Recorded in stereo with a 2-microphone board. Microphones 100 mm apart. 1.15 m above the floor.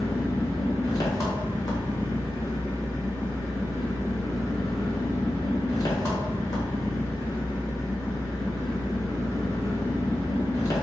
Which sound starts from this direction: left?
An engine running, at 0.0 s.